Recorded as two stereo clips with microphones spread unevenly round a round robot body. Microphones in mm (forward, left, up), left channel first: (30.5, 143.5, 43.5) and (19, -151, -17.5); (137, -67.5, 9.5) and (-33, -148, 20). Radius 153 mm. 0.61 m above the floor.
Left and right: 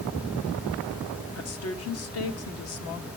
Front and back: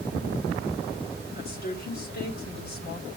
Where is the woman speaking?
50° left, 2.0 m.